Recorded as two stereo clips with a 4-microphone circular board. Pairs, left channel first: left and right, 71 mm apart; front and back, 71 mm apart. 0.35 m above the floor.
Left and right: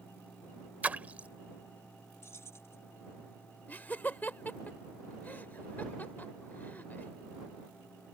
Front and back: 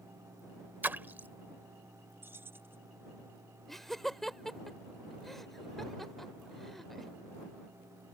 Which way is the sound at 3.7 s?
80° left.